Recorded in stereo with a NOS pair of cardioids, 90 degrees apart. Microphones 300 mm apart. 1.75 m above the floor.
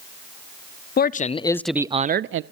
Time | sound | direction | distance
1.0 | a man speaking | 35° left | 0.7 m